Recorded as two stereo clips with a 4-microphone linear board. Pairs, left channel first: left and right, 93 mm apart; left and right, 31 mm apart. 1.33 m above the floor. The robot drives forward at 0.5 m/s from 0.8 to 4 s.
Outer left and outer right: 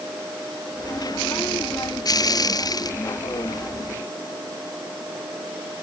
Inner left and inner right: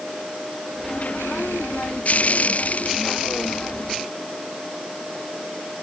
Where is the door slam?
No door slam in this recording.